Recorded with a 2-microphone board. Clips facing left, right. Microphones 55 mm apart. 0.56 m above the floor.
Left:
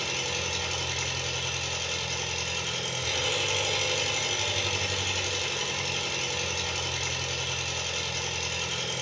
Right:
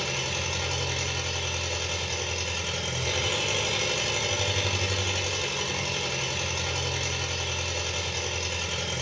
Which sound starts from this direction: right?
An engine running, at 0.0 s.